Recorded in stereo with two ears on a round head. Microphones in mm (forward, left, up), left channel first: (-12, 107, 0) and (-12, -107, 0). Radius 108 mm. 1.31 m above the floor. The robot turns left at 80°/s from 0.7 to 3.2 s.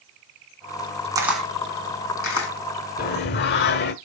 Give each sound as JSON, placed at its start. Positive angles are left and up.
{"t": 1.1, "sound": "a camera shutter", "side_deg": -15, "distance_m": 2.5}
{"t": 3.0, "sound": "singing", "side_deg": 40, "distance_m": 1.3}